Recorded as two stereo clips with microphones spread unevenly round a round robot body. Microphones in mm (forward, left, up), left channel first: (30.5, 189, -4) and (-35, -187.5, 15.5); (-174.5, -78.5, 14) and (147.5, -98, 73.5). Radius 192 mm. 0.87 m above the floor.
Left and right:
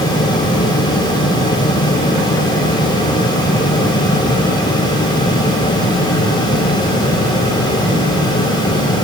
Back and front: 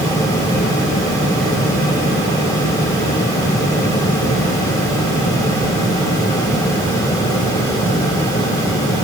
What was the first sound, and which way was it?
Only background noise.